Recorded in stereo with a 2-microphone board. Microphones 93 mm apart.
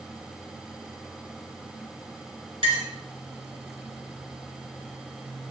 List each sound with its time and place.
2.6 s a clink: 75° right (ahead or behind), 3.5 m